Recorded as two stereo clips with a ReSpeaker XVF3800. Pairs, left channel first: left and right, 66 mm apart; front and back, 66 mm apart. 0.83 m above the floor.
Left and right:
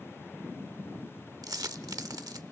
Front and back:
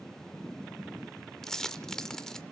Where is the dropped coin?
80° right, 0.8 m.